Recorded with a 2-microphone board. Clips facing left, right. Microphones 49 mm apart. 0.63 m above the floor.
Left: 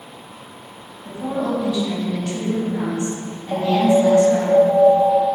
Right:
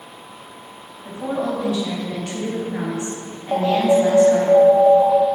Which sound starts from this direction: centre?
An alarm, at 3.5 s.